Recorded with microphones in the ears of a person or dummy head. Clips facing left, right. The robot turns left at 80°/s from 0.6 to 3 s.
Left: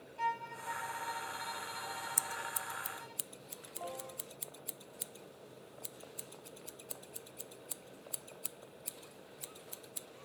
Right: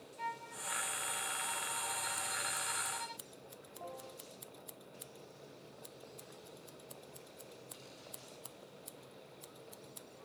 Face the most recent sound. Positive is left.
turn(degrees=35)  # may be behind; listen again after turning